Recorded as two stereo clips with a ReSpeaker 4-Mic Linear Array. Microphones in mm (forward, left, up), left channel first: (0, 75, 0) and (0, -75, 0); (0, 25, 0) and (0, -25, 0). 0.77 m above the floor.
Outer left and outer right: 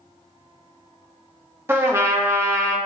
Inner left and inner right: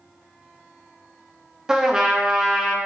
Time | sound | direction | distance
1.7 | a trumpet | 15° right (ahead or behind) | 0.9 m